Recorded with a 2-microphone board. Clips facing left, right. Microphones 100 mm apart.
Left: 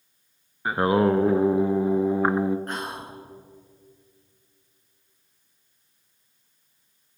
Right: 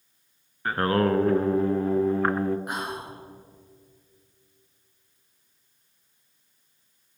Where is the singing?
15° left (ahead or behind), 0.6 m.